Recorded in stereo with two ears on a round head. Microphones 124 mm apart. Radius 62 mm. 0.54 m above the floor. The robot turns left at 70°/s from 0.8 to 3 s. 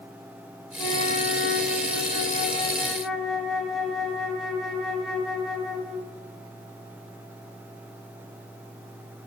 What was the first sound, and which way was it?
A flute, 155° left.